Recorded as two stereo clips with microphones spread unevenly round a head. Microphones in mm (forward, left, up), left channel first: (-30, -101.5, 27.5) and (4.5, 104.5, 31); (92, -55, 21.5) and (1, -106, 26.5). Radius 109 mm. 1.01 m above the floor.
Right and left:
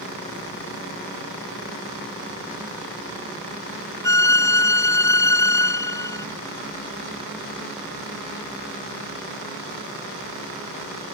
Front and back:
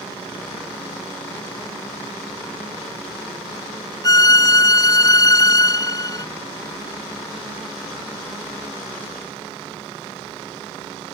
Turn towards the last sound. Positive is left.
turn(degrees=-25)